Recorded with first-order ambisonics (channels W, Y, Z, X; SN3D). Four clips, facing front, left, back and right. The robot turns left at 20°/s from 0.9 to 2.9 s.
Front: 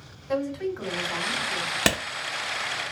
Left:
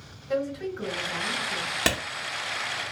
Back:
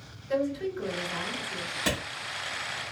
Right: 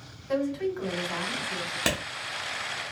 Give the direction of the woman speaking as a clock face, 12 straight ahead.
1 o'clock.